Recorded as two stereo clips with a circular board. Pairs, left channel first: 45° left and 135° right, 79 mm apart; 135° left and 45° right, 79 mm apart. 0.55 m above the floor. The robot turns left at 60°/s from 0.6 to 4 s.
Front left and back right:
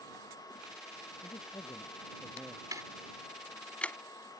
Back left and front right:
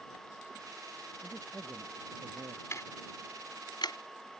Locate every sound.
1.2 s a man speaking: 35° left; by 2.6 s 50° right
2.7 s ticking: 175° right; by 4.0 s 110° left